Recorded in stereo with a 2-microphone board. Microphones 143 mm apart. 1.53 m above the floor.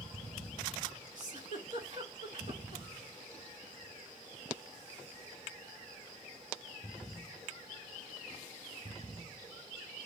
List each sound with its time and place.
1.1 s a giggle: 55° right (ahead or behind), 3 m